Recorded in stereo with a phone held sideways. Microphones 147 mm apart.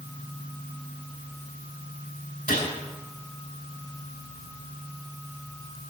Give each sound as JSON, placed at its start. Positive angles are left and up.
{"t": 2.5, "sound": "a gunshot", "side_deg": 80, "distance_m": 4.5}